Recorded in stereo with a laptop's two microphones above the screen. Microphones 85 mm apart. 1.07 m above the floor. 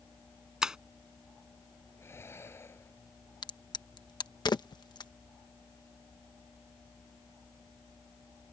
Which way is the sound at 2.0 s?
30° left (ahead or behind).